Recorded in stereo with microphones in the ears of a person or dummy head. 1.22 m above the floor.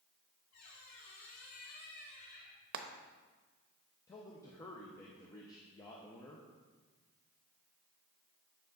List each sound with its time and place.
0.5 s a squeak: 50° left (ahead or behind), 1.6 m
2.7 s frying: 55° right (ahead or behind), 0.7 m
4.1 s a man speaking: 20° left (ahead or behind), 0.8 m